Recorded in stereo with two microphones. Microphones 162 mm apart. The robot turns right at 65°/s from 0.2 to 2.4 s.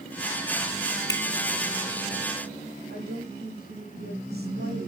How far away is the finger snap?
About 0.9 m.